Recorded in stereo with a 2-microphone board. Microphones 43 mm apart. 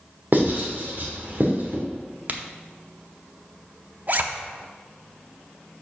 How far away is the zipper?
About 0.7 m.